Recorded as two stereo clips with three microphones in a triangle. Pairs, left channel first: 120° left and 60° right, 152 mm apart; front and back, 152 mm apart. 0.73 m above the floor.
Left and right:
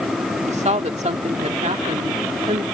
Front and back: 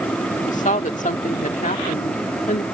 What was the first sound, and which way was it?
A woman speaking, 25° right.